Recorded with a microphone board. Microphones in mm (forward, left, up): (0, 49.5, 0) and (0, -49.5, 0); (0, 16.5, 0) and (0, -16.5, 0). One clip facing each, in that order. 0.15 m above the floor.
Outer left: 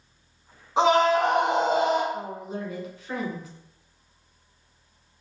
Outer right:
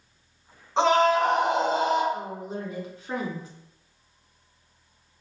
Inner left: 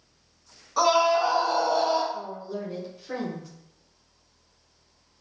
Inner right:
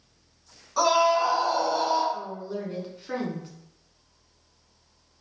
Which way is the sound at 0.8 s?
10° left (ahead or behind).